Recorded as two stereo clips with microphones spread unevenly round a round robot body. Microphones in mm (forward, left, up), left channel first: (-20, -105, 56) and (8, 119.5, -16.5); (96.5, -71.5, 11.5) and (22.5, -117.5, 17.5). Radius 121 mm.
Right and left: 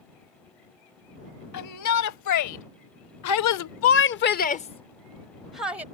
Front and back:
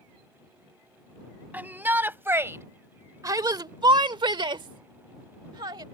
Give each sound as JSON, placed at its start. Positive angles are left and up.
{"t": 1.5, "sound": "a shout", "azimuth_deg": -80}